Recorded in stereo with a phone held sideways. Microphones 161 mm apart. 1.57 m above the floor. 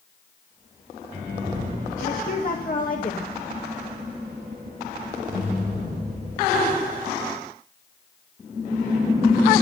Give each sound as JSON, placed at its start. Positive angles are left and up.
{"t": 2.0, "sound": "a woman speaking", "side_deg": 55, "distance_m": 2.0}